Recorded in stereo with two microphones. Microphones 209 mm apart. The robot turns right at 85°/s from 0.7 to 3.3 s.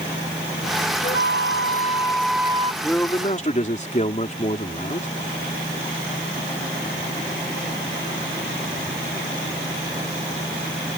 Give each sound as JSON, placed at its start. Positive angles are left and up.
{"t": 1.0, "sound": "a flute", "azimuth_deg": 75}
{"t": 2.8, "sound": "a man speaking", "azimuth_deg": -5}